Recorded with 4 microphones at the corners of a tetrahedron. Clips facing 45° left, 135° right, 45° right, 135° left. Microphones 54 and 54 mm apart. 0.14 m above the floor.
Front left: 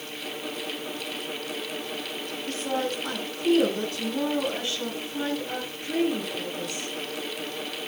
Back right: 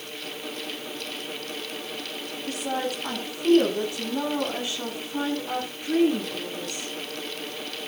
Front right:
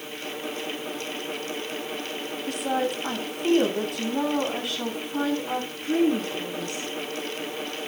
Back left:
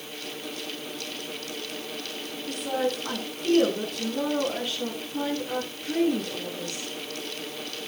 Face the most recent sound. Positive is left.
turn(degrees=-70)